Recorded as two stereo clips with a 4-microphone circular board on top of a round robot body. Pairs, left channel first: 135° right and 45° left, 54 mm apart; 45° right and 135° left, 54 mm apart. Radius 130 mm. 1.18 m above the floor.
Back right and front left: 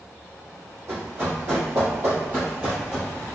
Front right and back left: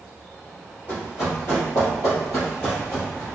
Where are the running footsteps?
Straight ahead, 2.0 m; by 3.2 s 75° right, 1.2 m.